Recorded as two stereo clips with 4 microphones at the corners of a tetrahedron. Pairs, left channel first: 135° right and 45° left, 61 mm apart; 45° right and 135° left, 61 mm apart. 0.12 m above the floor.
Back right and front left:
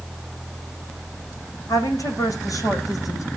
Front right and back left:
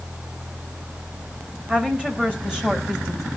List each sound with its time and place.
1.7 s a woman speaking: 155° right, 7.5 m; by 3.3 s 145° right, 5.5 m